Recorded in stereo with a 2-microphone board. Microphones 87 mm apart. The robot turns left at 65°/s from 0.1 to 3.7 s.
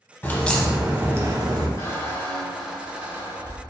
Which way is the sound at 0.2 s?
25° left.